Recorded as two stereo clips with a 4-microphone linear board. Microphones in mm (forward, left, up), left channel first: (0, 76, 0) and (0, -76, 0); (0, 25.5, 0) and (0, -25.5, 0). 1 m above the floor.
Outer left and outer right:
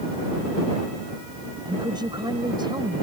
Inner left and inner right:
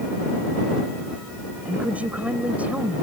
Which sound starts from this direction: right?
A woman speaking, at 1.6 s.